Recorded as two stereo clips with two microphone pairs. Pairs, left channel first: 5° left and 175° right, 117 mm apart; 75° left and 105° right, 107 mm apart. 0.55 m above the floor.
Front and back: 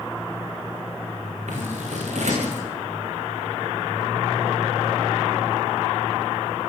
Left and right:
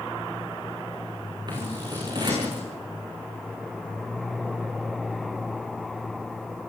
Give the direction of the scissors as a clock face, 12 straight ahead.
5 o'clock.